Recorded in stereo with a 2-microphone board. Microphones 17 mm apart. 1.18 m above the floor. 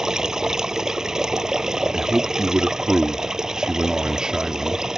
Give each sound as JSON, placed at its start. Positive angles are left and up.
{"t": 0.0, "sound": "running water", "side_deg": -40}
{"t": 1.9, "sound": "a man speaking", "side_deg": -55}